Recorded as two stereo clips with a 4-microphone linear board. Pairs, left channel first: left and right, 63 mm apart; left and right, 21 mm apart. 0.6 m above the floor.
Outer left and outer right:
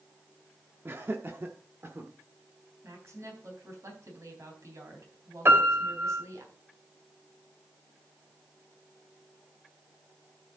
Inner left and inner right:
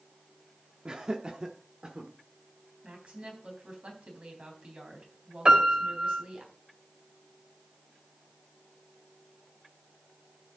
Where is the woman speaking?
60° right (ahead or behind), 3.5 m.